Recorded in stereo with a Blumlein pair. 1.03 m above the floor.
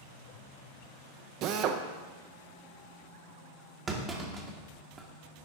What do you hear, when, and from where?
1.4 s a drill: 40° right, 0.6 m
3.9 s a clunk: 20° right, 1.1 m